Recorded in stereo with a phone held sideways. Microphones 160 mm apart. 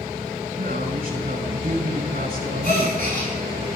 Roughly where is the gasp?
Left.